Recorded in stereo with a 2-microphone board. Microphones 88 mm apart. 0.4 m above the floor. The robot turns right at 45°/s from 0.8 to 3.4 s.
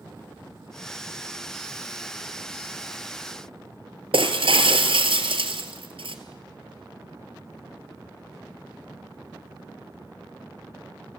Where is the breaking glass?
80° right, 2.5 m.